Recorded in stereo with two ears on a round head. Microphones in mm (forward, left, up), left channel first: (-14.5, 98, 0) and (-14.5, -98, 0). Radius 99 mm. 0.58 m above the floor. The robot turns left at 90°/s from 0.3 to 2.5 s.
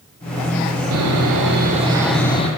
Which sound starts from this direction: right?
Sawing, at 0.9 s.